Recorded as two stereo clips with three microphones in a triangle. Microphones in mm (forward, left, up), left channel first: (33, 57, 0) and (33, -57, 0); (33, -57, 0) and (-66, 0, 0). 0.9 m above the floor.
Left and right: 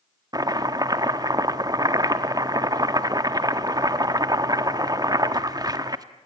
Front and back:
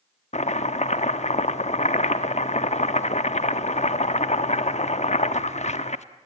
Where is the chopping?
35° right, 1.0 m.